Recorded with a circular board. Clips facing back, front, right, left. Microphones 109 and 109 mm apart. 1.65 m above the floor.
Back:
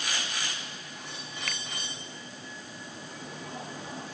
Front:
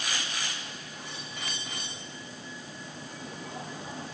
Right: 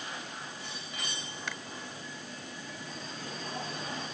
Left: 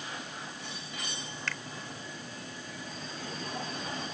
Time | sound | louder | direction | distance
1.5 | a finger snap | back 2 dB, even | 165° right | ?